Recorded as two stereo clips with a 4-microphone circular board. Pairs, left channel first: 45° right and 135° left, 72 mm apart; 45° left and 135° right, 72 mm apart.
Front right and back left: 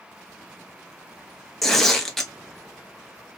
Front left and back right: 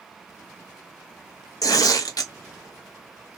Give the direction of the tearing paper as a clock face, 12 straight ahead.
11 o'clock.